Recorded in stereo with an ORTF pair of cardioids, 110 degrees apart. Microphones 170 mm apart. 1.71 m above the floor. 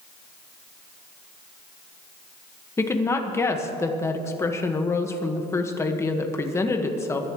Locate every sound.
2.8 s a woman speaking: 15° left, 1.7 m